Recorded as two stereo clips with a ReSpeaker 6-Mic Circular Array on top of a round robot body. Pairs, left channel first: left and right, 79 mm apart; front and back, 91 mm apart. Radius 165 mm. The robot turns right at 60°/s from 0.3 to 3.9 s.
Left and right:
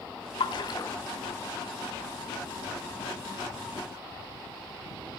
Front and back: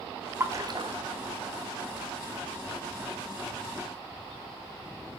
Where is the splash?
115° left, 1.8 m; by 0.9 s 150° left, 1.8 m.